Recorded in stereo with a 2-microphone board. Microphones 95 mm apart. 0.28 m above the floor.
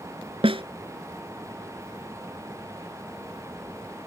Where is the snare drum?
80° right.